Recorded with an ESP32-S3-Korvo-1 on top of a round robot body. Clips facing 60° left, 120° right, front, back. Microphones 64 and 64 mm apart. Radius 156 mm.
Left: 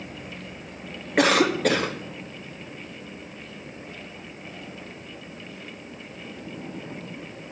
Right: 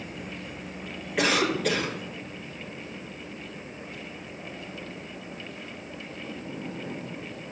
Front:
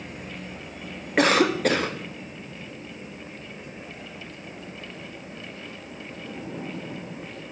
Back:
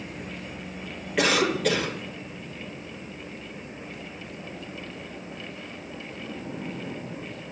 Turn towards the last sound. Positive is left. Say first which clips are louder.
# left 5 dB, front 3 dB
turn(degrees=35)